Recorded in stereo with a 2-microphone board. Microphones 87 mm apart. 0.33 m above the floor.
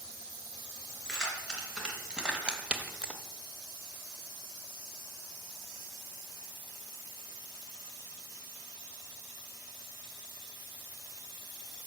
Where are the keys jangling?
10° right (ahead or behind), 3 m.